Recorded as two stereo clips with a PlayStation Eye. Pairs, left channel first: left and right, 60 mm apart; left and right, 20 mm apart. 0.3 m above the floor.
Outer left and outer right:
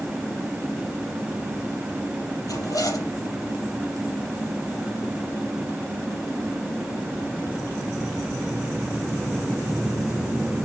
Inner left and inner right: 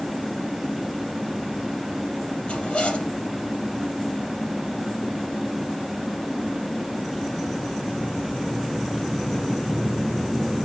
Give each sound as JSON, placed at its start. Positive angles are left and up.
{"t": 2.5, "sound": "a zipper", "side_deg": 70, "distance_m": 5.0}